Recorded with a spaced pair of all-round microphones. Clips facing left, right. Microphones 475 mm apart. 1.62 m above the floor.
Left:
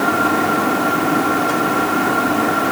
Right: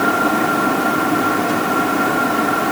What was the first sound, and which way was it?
Only background noise.